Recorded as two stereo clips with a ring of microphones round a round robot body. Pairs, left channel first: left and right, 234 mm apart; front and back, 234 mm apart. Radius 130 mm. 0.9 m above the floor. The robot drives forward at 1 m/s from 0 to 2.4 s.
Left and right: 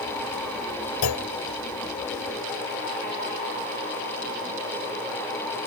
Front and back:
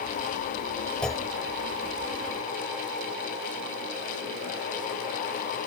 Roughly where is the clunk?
Left.